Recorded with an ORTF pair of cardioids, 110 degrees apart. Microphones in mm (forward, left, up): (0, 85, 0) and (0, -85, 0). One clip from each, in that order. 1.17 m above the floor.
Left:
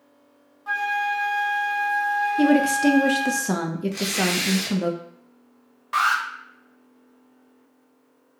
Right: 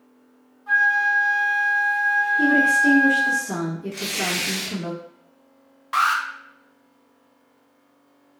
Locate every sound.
0.7 s a flute: 45° left, 0.6 m
2.4 s a woman speaking: 70° left, 0.6 m
3.9 s tearing paper: 25° left, 0.9 m
5.9 s an alarm: 10° right, 0.5 m